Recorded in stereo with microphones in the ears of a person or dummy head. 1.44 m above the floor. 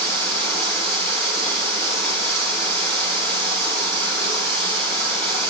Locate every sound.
0.0 s running water: 10° left (ahead or behind), 4 m